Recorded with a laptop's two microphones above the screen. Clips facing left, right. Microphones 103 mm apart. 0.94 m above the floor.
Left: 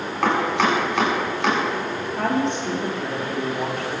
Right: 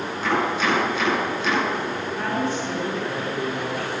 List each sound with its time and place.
0.2 s chopping: 85° left, 7 m
2.1 s a woman speaking: 65° left (ahead or behind), 2.5 m